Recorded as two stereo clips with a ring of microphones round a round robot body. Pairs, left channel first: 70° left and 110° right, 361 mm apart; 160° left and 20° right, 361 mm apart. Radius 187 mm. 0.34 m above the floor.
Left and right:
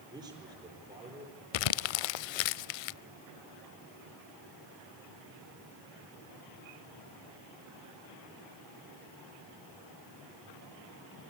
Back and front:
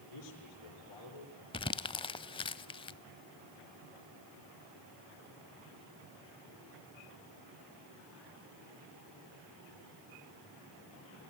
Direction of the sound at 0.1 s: 170° left.